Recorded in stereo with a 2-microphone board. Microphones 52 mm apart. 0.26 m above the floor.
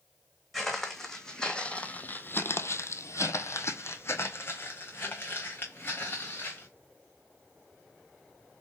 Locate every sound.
0.5 s footsteps: centre (ahead or behind), 1.2 m; by 6.7 s 40° left (ahead or behind), 2 m